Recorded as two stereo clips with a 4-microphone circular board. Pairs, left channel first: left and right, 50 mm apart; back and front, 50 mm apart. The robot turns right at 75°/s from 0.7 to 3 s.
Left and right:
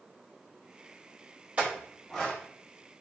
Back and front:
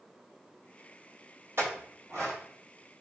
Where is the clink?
30° right, 1.0 m; by 2.4 s 30° left, 1.0 m.